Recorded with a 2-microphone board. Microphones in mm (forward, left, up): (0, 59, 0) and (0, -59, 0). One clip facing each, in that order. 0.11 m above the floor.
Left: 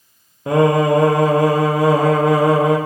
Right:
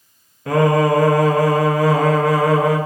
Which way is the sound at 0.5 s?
25° left (ahead or behind).